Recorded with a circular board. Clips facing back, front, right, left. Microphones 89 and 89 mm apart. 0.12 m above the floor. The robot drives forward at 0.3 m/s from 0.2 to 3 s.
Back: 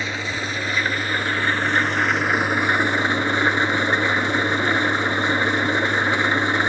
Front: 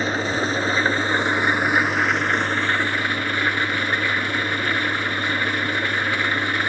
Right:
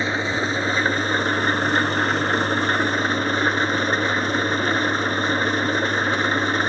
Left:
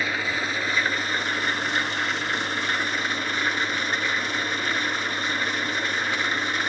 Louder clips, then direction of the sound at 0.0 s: Front 5 dB, right 4 dB; 35° right.